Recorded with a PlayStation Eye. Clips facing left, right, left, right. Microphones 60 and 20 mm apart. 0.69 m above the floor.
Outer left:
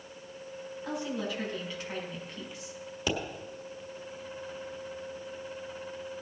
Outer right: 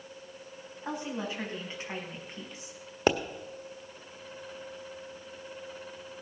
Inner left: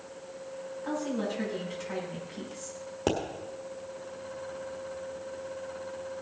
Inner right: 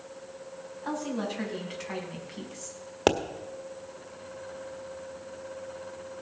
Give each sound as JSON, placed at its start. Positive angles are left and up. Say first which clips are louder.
{"t": 0.8, "sound": "a woman speaking", "louder": "outer left 1 dB, even", "side_deg": -25, "distance_m": 5.0}
{"t": 3.1, "sound": "a pop", "louder": "outer right 7 dB, inner right 5 dB", "side_deg": -45, "distance_m": 1.3}